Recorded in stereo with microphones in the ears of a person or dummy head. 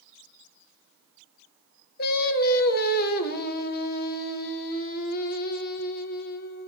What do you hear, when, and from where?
2.0 s singing: 50° left (ahead or behind), 0.8 m